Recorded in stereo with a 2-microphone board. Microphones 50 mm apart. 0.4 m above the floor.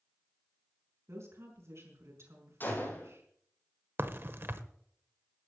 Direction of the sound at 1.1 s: 65° right (ahead or behind).